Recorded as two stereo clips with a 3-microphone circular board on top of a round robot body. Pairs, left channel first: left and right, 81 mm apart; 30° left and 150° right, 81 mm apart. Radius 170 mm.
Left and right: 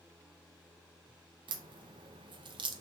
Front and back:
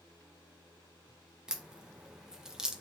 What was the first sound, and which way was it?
A crack, 65° right.